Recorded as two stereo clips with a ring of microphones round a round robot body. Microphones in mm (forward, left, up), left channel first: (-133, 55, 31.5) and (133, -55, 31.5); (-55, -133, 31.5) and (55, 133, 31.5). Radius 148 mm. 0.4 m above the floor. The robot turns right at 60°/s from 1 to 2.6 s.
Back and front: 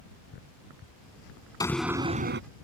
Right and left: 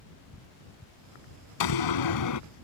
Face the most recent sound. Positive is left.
turn(degrees=-65)